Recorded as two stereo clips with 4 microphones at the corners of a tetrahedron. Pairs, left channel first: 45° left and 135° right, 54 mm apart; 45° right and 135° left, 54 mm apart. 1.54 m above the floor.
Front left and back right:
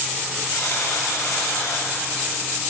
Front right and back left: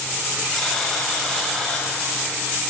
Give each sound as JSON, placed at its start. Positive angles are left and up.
{"t": 0.5, "sound": "a buzzer", "azimuth_deg": 40, "distance_m": 7.0}